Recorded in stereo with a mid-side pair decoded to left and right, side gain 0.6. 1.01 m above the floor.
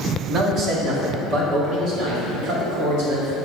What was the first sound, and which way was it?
A man speaking, 45° right.